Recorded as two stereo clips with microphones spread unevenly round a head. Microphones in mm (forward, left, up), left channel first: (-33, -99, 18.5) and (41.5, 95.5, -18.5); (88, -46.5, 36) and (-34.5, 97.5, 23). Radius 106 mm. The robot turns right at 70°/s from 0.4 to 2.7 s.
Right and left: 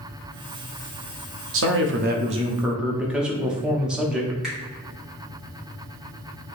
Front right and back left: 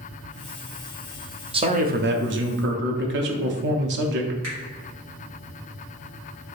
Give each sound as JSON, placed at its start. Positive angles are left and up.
{"t": 1.5, "sound": "a man speaking", "azimuth_deg": 70, "distance_m": 0.6}
{"t": 4.4, "sound": "a finger snap", "azimuth_deg": 160, "distance_m": 1.5}